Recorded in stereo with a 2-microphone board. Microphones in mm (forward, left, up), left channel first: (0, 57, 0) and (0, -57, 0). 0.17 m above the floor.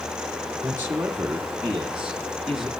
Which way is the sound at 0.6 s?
15° right (ahead or behind).